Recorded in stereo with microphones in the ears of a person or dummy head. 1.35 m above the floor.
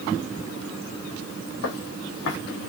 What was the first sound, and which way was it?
Footsteps, 60° left (ahead or behind).